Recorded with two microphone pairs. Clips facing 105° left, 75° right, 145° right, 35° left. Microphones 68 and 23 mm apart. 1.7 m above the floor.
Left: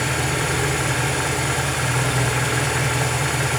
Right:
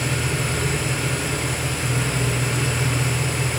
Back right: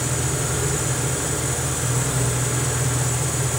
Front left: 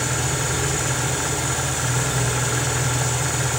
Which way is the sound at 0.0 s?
105° left.